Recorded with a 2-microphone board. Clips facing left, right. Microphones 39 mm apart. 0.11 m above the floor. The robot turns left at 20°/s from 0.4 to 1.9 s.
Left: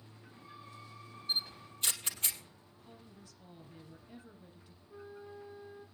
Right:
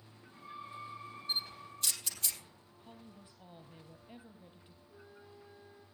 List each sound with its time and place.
1.3 s a camera shutter: 25° left (ahead or behind), 2.5 m; by 2.4 s 35° left (ahead or behind), 2.5 m
2.8 s a woman speaking: 30° right (ahead or behind), 3 m
4.9 s a flute: 20° left (ahead or behind), 3 m